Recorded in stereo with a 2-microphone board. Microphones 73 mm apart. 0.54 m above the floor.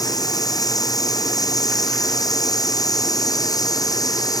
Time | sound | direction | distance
0.0 | running water | 55° left (ahead or behind) | ?